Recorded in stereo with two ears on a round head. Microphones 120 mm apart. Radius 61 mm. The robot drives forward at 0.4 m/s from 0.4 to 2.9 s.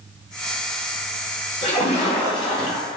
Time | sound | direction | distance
1.6 | a splash | 50° left (ahead or behind) | 2 m